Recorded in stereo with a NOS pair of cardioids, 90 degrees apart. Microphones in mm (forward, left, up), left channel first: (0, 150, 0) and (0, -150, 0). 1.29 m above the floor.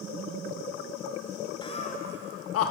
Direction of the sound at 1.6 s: 15° left.